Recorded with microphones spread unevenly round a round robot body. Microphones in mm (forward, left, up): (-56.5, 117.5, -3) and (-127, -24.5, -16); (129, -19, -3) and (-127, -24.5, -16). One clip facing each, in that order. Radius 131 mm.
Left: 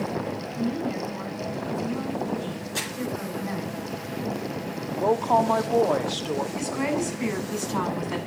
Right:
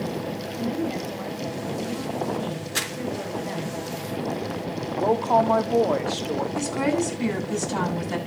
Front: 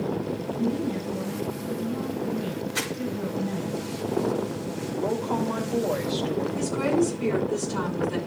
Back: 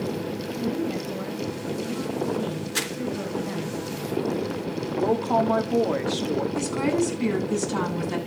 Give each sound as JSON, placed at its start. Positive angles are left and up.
{"t": 0.5, "sound": "a woman speaking", "azimuth_deg": 180, "distance_m": 5.0}
{"t": 2.8, "sound": "crumpling", "azimuth_deg": -140, "distance_m": 3.0}
{"t": 5.0, "sound": "a woman speaking", "azimuth_deg": 160, "distance_m": 1.9}
{"t": 6.5, "sound": "a woman speaking", "azimuth_deg": -165, "distance_m": 9.0}